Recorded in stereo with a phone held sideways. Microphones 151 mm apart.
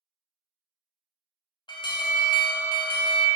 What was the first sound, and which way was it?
An alarm, 30° left (ahead or behind).